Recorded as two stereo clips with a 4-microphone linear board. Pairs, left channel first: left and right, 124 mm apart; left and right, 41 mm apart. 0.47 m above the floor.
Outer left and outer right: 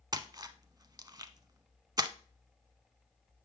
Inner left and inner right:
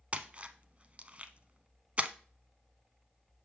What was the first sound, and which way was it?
A splash, 30° right (ahead or behind).